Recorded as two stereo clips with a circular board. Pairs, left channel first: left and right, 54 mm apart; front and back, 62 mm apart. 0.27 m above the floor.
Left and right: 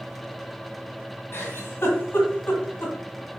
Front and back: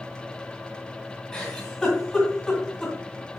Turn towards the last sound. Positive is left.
turn(degrees=75)